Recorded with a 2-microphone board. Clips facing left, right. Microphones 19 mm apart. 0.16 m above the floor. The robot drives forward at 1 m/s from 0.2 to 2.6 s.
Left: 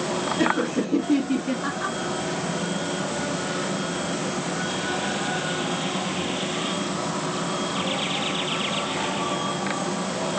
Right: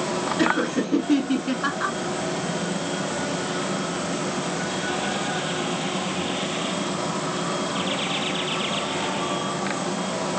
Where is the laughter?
30° right (ahead or behind), 2.5 m; by 2.0 s 40° right (ahead or behind), 1.8 m.